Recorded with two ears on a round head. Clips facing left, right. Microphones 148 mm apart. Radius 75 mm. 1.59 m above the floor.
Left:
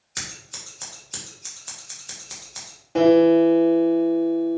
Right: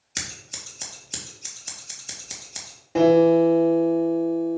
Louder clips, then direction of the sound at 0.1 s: Right 1 dB; 25° right (ahead or behind).